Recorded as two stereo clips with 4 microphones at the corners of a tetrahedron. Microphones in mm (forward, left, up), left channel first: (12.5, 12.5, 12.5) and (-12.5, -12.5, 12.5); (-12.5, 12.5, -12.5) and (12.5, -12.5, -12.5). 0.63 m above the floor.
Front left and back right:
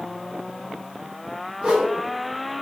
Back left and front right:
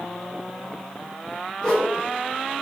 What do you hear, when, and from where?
1.6 s a whoosh: 165° right, 1.3 m